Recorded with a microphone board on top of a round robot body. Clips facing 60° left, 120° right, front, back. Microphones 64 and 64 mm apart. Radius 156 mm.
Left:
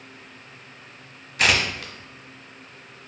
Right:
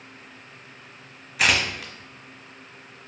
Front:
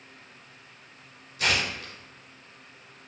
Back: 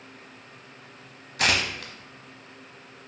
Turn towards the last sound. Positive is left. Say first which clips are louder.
# left 1 dB, back 2 dB
turn(degrees=155)